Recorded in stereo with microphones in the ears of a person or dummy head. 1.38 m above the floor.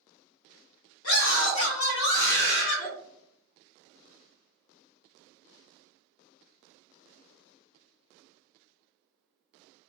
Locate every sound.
1.0 s a scream: 80° left, 2 m; by 2.9 s 40° left (ahead or behind), 1.5 m